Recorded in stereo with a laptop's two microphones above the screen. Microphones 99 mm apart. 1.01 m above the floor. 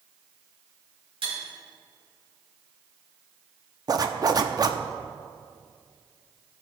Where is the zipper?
40° right (ahead or behind), 0.6 m.